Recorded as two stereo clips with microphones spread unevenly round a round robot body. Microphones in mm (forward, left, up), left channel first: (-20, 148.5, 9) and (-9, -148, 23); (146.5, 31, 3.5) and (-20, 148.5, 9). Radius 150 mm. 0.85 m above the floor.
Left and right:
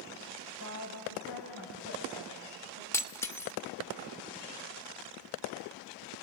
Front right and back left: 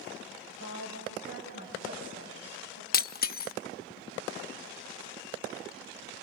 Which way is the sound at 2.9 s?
10° left.